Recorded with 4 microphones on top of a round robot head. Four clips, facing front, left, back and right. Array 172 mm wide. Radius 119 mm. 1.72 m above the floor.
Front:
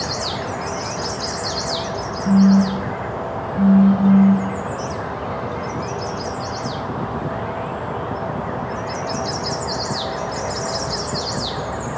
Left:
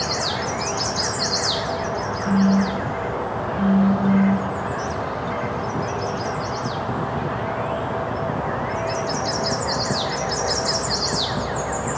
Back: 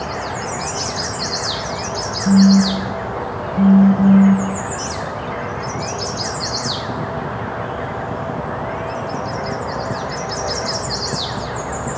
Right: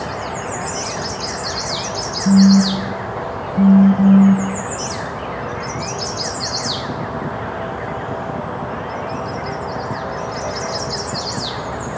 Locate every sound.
2.2 s a phone buzzing: 115° right, 1.0 m